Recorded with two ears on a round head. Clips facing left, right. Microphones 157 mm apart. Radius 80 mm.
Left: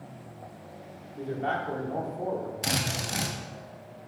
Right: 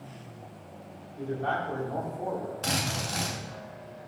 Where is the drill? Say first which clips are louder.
Even; 20° left (ahead or behind), 1.1 m.